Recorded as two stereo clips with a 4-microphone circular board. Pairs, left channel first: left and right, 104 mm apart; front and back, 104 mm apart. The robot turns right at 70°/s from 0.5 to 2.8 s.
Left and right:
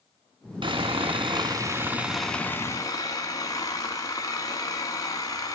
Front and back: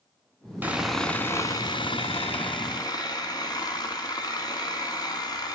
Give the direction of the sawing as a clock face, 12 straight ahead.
4 o'clock.